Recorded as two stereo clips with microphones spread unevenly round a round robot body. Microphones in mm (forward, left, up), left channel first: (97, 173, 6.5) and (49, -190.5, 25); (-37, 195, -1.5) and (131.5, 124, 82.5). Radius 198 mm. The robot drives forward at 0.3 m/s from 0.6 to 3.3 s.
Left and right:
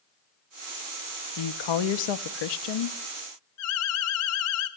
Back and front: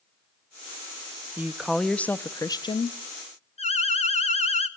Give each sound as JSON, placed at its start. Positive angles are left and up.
{"t": 1.4, "sound": "a woman speaking", "azimuth_deg": 70, "distance_m": 0.8}
{"t": 3.6, "sound": "an alarm", "azimuth_deg": 125, "distance_m": 1.9}